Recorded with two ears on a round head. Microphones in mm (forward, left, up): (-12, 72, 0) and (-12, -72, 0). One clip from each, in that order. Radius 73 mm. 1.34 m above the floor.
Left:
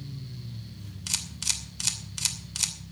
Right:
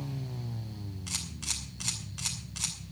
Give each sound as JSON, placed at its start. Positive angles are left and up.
{"t": 1.1, "sound": "a camera shutter", "side_deg": 75, "distance_m": 2.5}